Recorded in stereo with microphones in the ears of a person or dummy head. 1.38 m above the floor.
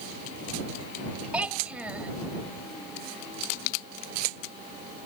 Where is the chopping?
No chopping in this recording.